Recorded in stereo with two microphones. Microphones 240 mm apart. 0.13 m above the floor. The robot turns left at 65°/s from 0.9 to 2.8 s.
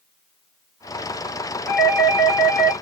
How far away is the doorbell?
About 1.9 m.